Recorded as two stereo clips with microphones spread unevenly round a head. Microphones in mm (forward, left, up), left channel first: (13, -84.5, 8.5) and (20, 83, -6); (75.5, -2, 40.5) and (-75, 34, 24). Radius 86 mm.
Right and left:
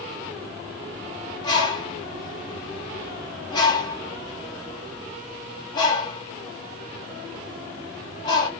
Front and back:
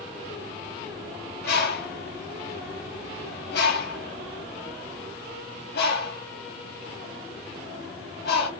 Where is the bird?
25° right, 1.8 m.